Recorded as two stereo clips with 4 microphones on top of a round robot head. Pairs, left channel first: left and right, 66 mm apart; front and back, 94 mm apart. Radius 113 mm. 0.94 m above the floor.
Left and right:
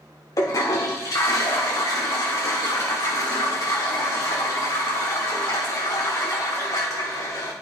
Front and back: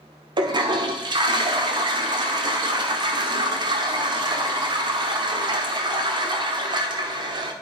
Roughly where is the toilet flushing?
Behind left.